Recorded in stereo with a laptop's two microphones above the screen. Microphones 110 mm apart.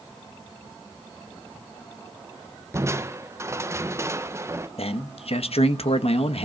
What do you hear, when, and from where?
2.7 s crushing: 25° right (ahead or behind), 0.9 m
4.8 s a man speaking: 65° left (ahead or behind), 1.1 m